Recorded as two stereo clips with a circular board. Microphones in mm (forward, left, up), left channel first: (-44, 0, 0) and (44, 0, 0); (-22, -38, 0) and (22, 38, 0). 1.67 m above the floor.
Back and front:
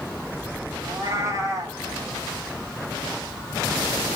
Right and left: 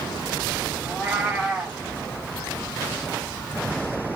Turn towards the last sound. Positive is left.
turn(degrees=-5)